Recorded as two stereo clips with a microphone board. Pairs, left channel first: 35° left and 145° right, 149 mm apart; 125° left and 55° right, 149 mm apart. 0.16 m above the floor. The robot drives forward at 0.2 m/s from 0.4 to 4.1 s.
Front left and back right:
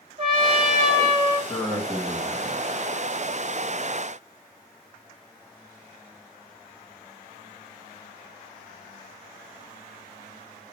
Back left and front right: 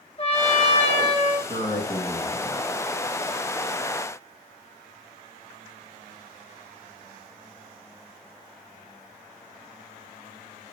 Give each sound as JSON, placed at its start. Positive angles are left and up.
{"t": 0.2, "sound": "a trumpet", "azimuth_deg": 165, "distance_m": 1.4}
{"t": 1.5, "sound": "a man speaking", "azimuth_deg": 115, "distance_m": 1.9}